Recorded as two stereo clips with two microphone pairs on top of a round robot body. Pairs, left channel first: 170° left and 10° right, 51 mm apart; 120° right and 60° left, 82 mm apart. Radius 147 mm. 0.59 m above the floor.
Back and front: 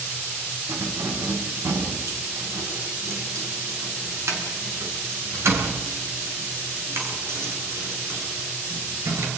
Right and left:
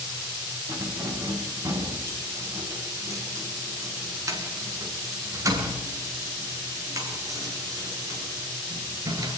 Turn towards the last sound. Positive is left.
turn(degrees=15)